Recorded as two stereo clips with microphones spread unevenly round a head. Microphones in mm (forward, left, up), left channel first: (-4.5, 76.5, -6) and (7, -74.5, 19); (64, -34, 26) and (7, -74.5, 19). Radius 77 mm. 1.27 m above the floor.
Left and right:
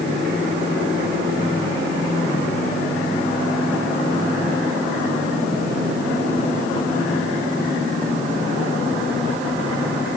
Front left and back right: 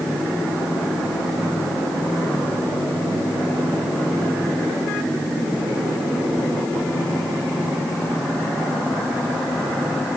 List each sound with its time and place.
Only background noise.